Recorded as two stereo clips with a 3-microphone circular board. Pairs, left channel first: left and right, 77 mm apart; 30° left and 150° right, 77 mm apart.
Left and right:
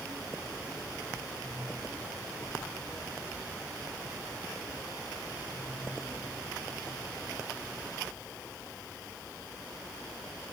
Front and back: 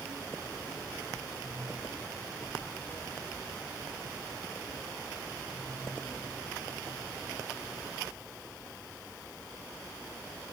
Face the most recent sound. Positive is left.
No sound to turn to.